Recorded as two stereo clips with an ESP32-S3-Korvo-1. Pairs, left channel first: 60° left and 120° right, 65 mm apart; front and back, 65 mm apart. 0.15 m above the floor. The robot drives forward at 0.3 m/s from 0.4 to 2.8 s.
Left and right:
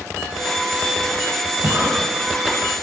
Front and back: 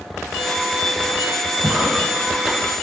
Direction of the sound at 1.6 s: 115° right.